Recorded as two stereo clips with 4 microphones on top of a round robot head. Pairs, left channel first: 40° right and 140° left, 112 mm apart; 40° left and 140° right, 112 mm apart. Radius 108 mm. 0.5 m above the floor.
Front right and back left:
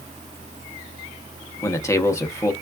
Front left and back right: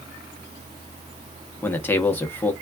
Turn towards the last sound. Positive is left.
turn(degrees=-10)